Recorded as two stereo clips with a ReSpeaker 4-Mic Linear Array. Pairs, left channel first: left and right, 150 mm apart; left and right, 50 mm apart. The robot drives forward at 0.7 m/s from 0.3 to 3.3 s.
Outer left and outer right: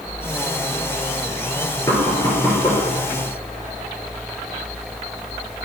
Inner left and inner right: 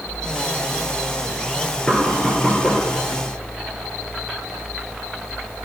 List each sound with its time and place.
1.9 s knocking: 25° left (ahead or behind), 2 m; by 2.8 s 20° left (ahead or behind), 2.5 m